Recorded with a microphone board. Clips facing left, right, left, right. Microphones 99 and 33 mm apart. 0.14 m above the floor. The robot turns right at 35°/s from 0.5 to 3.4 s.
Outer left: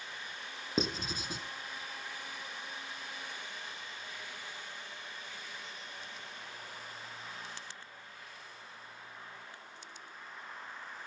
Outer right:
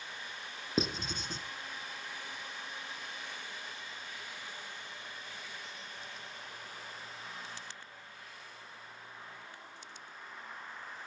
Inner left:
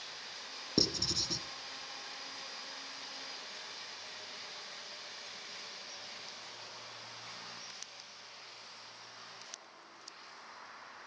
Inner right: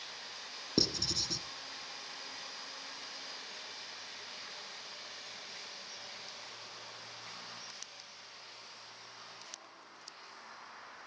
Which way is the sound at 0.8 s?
Centre (ahead or behind).